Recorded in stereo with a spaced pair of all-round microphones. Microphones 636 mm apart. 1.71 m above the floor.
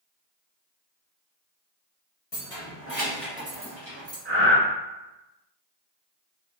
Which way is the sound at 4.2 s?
45° right (ahead or behind).